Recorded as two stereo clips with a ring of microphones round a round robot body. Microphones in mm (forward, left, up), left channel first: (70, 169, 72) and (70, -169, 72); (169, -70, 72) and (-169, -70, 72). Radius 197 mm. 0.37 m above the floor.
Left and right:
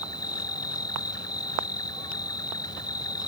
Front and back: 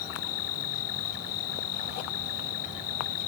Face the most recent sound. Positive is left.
turn(degrees=10)